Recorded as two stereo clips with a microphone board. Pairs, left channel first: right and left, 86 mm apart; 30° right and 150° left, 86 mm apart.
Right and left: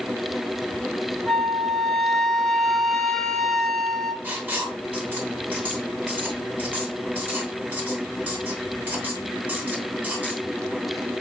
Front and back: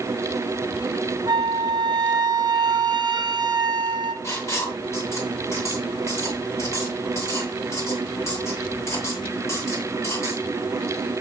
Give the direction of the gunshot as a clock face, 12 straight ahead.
I don't hear a gunshot.